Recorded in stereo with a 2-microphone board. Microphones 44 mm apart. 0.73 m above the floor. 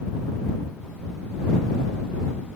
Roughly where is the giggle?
I don't hear a giggle.